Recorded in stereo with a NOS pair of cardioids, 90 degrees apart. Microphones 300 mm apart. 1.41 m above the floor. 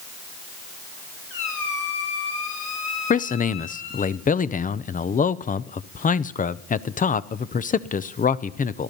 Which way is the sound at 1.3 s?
45° left.